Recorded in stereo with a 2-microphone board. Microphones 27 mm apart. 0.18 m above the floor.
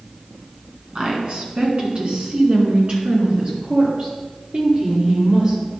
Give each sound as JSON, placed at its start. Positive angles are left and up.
{"t": 0.9, "sound": "a woman speaking", "side_deg": -45, "distance_m": 1.9}